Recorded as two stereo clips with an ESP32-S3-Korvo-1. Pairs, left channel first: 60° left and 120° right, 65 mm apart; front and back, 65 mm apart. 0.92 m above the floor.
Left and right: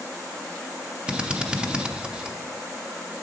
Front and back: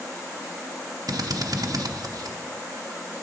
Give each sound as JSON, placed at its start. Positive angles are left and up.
{"t": 1.1, "sound": "a drill", "azimuth_deg": 165, "distance_m": 0.6}